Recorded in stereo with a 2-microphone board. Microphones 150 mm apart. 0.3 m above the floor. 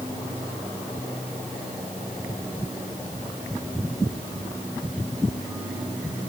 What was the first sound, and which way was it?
Only background noise.